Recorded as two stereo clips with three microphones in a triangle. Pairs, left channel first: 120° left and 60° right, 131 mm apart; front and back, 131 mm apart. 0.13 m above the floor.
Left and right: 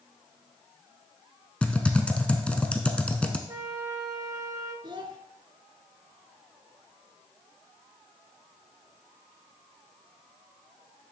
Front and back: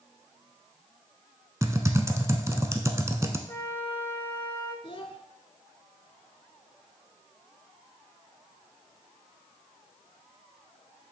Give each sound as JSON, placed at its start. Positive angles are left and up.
{"t": 1.6, "sound": "typing on a keyboard", "azimuth_deg": -175, "distance_m": 0.7}
{"t": 3.5, "sound": "a flute", "azimuth_deg": -45, "distance_m": 1.9}
{"t": 4.8, "sound": "a child speaking", "azimuth_deg": -25, "distance_m": 0.9}